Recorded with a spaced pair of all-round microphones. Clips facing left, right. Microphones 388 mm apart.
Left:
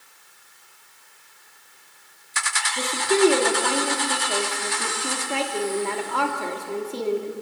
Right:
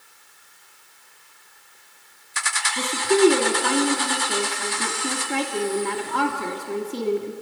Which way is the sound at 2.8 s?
25° right (ahead or behind).